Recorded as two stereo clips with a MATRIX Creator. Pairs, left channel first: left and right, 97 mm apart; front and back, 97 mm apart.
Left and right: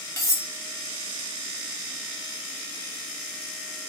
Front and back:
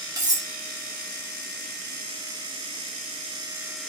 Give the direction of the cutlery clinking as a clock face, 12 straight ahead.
7 o'clock.